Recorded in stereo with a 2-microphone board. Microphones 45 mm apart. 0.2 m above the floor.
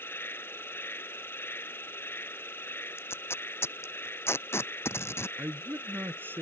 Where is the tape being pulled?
70° left (ahead or behind).